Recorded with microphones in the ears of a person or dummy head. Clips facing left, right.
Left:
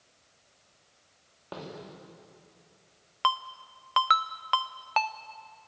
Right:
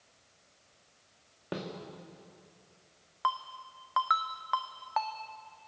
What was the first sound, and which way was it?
A snare drum, 25° right (ahead or behind).